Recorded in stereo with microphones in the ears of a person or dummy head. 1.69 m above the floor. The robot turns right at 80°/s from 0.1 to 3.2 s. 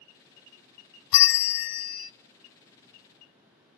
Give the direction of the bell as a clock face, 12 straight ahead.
10 o'clock.